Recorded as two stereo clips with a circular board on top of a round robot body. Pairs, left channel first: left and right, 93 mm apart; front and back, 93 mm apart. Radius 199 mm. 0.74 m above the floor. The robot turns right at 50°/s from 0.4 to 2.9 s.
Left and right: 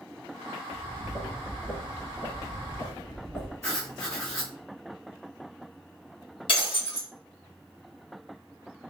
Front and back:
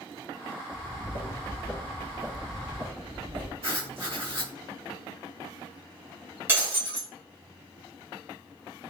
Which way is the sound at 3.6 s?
150° left.